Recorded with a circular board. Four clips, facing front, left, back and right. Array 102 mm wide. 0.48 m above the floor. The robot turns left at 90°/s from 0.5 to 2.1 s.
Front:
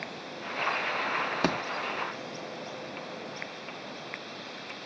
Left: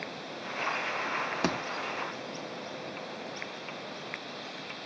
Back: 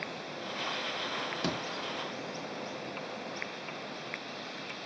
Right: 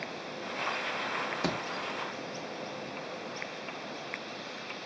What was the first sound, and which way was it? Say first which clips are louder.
A thud: left 3 dB, front 6 dB; 15° left.